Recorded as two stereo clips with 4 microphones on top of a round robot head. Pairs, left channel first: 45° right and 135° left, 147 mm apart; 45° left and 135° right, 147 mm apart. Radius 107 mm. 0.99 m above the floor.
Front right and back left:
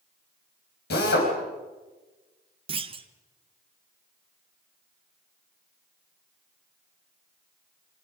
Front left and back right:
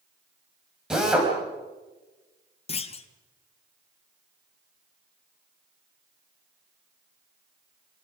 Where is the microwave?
I don't hear a microwave.